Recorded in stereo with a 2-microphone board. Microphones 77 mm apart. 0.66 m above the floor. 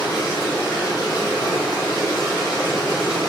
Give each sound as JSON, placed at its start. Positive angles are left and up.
{"t": 0.0, "sound": "running water", "side_deg": 75, "distance_m": 1.2}